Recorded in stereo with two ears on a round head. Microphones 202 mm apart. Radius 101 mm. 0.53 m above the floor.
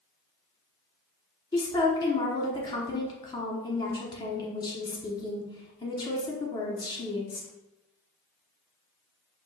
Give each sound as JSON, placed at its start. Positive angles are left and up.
{"t": 1.5, "sound": "a woman speaking", "side_deg": 20, "distance_m": 1.0}